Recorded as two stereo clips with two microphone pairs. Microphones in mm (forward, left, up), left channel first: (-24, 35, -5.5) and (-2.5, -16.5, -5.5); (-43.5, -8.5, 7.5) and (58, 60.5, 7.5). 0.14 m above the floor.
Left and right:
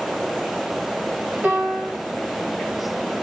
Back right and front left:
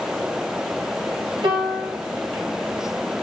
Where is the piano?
10° right, 1.3 m.